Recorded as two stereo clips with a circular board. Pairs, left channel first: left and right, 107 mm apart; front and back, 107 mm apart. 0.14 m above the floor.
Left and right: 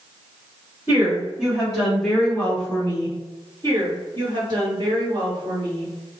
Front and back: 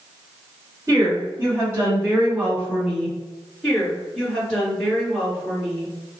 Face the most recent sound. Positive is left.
turn(degrees=-85)